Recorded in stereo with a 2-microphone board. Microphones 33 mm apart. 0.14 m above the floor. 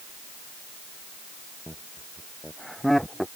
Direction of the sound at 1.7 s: 15° left (ahead or behind).